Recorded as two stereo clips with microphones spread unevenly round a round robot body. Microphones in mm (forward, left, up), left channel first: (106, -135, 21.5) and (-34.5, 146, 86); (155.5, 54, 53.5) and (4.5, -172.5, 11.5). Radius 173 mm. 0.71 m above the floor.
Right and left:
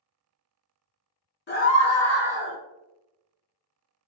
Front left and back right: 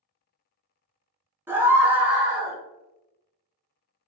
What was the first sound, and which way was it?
A scream, 55° right.